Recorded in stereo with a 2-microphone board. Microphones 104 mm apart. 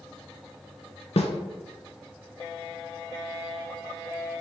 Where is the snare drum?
75° left (ahead or behind), 0.6 m.